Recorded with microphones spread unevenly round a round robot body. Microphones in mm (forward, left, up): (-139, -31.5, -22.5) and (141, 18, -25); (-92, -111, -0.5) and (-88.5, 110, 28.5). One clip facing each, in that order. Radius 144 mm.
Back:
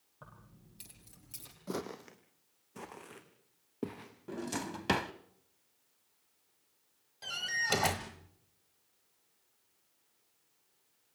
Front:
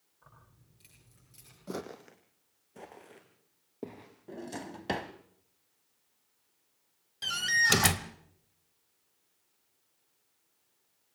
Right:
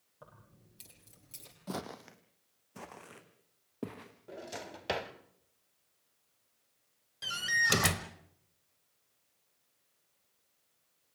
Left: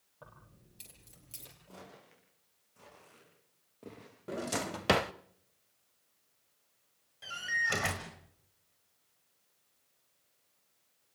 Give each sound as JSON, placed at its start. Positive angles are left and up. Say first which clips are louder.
{"t": 0.2, "sound": "keys jangling", "louder": "back 7 dB, even", "azimuth_deg": -175, "distance_m": 9.5}
{"t": 1.7, "sound": "footsteps", "louder": "even, right 13 dB", "azimuth_deg": -85, "distance_m": 1.3}
{"t": 4.3, "sound": "a drawer", "louder": "back 2 dB, left 9 dB", "azimuth_deg": 115, "distance_m": 0.6}
{"t": 7.2, "sound": "a door slam", "louder": "front 5 dB, right 3 dB", "azimuth_deg": -45, "distance_m": 1.0}